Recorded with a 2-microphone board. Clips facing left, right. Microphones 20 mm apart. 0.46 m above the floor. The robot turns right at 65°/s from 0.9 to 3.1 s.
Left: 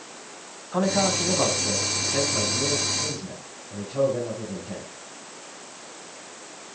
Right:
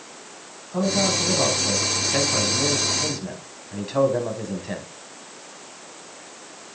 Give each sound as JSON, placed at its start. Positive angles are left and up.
{"t": 0.7, "sound": "a man speaking", "azimuth_deg": 140, "distance_m": 4.0}